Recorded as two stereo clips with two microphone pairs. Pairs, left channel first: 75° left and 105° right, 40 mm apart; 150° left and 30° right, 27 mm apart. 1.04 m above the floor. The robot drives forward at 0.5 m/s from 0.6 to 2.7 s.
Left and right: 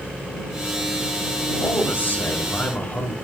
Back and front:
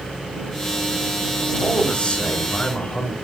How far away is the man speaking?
About 3 m.